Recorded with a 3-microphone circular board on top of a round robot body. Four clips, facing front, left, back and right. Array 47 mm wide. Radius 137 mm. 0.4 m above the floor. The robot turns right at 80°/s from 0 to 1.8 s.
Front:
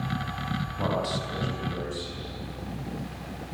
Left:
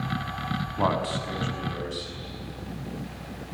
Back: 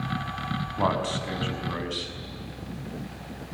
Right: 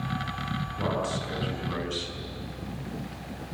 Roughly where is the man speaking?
Behind left.